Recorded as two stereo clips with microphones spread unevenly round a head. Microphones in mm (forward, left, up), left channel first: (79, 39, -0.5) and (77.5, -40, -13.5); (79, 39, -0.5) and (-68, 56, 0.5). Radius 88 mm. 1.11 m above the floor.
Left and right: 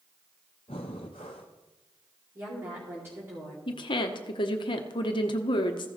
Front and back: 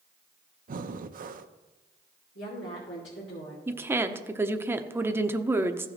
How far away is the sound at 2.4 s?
About 2.5 m.